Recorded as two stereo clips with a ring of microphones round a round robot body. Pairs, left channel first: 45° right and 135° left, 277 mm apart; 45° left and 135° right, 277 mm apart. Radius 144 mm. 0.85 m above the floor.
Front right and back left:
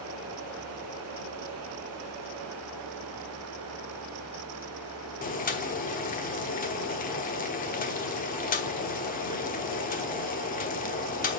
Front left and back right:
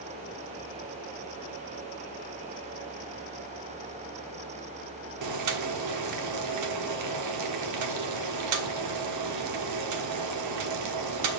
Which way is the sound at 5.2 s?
110° right.